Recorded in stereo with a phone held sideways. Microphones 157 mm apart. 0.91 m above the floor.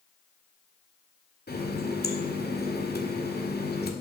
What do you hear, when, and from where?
1.5 s a running tap: 80° left, 1.7 m